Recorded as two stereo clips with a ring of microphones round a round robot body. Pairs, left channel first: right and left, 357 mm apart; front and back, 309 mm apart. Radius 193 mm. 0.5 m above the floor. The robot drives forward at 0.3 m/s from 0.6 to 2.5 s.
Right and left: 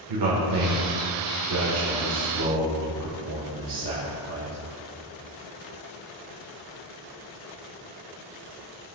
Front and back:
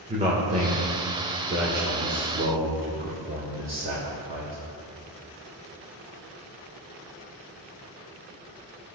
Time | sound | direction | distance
0.1 | a man speaking | 110° left | 1.5 m